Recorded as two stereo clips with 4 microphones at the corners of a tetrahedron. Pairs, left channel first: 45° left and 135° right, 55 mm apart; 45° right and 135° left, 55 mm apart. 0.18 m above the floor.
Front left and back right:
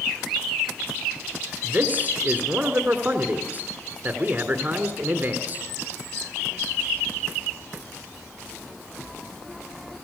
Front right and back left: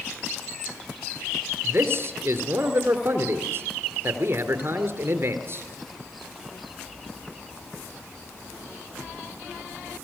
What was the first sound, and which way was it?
A man speaking, 170° left.